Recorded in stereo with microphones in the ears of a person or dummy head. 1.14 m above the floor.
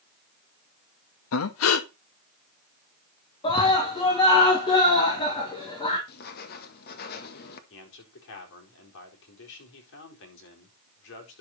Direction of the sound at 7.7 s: 70° left (ahead or behind).